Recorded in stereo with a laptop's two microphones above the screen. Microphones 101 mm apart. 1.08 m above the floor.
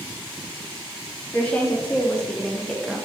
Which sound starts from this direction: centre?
A woman speaking, at 1.3 s.